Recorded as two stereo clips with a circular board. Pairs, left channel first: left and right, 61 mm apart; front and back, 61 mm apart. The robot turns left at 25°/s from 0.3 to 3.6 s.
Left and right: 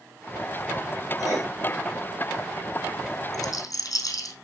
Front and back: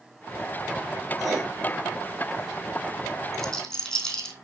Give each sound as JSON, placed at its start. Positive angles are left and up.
{"t": 1.2, "sound": "writing", "azimuth_deg": 95, "distance_m": 5.5}
{"t": 3.3, "sound": "a rattle", "azimuth_deg": 80, "distance_m": 3.0}